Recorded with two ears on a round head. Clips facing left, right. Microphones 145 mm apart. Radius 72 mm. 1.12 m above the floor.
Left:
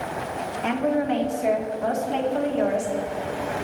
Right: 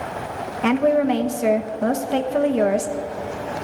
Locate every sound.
0.6 s a woman speaking: 70° right (ahead or behind), 1.0 m